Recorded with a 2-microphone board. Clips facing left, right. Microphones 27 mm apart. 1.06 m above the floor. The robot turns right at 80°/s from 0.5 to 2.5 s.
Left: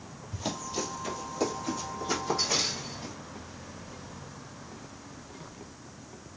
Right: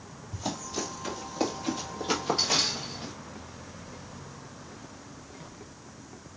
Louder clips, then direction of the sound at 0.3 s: Even; 15° left (ahead or behind).